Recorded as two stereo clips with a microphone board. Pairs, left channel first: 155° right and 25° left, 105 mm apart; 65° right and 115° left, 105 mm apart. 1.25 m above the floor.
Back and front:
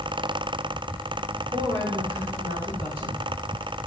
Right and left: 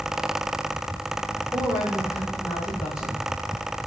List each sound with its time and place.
1.5 s a woman speaking: 45° left, 4.5 m; by 3.9 s 20° left, 4.5 m